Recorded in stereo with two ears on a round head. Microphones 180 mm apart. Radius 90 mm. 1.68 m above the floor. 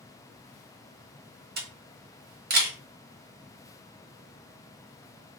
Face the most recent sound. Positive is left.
turn(degrees=-50)  # may be behind; listen again after turning